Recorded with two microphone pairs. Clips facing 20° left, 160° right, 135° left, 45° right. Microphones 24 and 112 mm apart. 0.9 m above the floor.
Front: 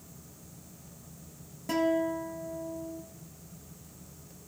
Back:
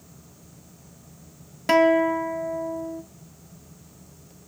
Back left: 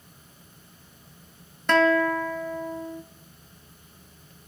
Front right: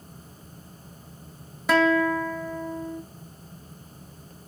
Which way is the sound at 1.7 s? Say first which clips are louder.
Back 10 dB, even; 135° right.